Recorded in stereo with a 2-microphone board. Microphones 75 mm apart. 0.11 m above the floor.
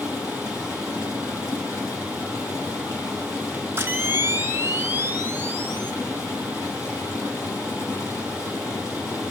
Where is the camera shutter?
30° right (ahead or behind), 0.8 m.